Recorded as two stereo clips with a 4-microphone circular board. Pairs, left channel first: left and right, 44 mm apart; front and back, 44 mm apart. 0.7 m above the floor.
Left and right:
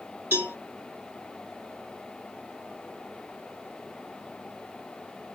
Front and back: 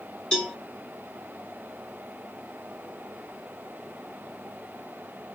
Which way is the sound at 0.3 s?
65° right.